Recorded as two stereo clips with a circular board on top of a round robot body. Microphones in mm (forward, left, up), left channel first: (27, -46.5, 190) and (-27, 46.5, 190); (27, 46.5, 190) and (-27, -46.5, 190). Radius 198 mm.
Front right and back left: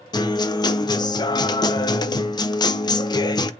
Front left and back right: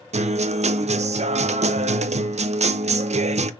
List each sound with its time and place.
0.1 s a guitar: 110° right, 0.5 m